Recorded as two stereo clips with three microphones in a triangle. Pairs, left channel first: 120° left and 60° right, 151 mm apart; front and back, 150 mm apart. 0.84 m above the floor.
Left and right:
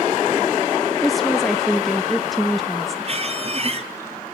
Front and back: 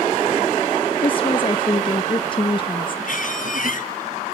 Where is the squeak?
15° right, 1.9 m.